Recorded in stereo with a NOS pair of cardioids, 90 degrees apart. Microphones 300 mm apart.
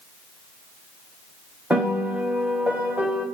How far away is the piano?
About 1.3 m.